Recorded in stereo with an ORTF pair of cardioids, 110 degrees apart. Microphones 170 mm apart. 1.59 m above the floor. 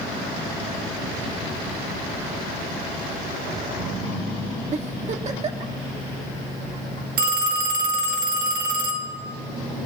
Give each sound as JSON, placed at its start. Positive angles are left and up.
{"t": 4.7, "sound": "a giggle", "azimuth_deg": -40, "distance_m": 1.4}
{"t": 7.2, "sound": "a phone ringing", "azimuth_deg": -65, "distance_m": 1.8}